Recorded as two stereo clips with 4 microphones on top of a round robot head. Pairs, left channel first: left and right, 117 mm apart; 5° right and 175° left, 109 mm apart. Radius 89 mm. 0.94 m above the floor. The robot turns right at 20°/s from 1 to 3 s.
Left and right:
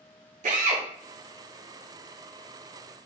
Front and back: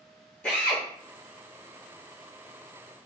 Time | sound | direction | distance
0.4 | a drill | 90° right | 0.8 m